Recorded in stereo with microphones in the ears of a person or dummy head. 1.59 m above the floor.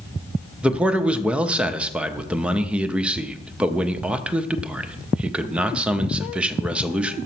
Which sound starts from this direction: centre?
A man speaking, at 0.6 s.